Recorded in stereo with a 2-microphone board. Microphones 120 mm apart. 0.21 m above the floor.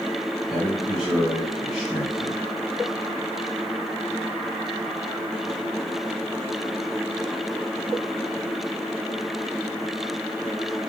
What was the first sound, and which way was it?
A man speaking, 5° right (ahead or behind).